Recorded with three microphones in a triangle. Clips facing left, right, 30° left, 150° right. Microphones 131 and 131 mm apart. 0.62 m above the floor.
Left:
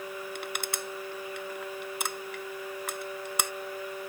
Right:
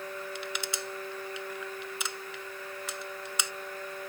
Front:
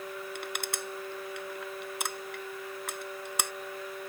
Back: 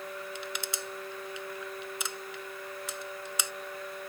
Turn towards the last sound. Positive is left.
turn(degrees=60)